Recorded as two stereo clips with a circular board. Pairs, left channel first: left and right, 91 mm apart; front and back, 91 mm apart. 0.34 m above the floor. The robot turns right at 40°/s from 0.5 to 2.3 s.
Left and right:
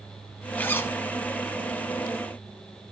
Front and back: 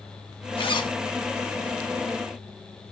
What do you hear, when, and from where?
0.6 s a zipper: 20° left, 0.6 m; by 1.0 s 35° left, 0.6 m